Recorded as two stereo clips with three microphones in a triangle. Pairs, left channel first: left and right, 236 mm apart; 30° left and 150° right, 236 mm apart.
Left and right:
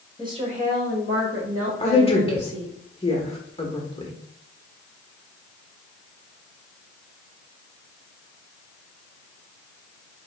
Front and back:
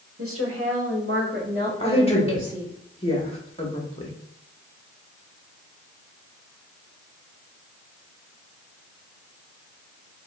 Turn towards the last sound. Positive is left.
turn(degrees=60)